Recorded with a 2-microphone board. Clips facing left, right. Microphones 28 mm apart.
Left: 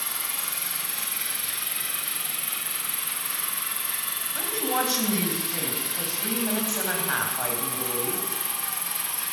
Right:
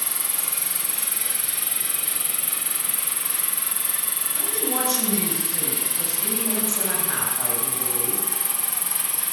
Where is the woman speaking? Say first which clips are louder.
Left 1 dB; 20° left (ahead or behind), 4.5 m.